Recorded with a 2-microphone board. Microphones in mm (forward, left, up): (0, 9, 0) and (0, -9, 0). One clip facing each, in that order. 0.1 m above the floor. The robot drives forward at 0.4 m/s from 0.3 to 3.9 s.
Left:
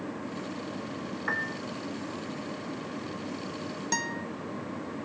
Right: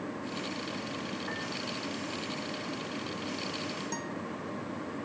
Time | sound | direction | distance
1.3 | a piano | 40° left (ahead or behind) | ?
3.9 | a guitar | 45° left (ahead or behind) | ?